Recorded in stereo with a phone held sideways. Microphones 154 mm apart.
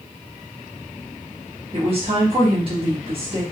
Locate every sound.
1.7 s a woman speaking: 40° right (ahead or behind), 1.0 m